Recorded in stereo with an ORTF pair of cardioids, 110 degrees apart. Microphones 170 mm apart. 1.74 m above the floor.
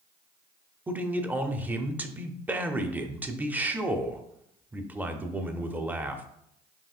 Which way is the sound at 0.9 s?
10° right.